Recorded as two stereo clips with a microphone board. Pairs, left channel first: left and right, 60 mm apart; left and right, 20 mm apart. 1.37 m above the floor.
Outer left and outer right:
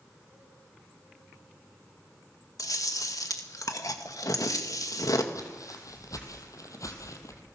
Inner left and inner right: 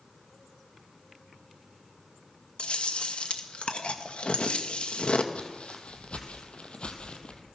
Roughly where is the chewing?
Left.